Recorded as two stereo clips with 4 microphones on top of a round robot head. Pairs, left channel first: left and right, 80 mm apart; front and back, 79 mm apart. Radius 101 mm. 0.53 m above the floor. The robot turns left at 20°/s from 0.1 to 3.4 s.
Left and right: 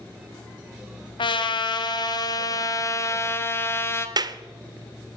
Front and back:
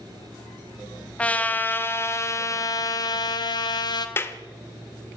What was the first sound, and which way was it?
A trumpet, 75° left.